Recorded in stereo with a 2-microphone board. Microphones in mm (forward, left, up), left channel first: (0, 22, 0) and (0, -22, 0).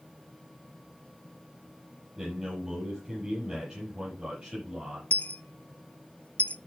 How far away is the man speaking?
About 7 m.